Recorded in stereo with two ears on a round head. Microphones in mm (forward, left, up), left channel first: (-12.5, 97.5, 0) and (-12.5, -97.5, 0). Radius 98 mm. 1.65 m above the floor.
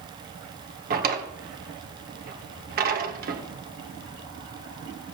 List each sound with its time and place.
0.9 s a drawer: 45° right (ahead or behind), 1.4 m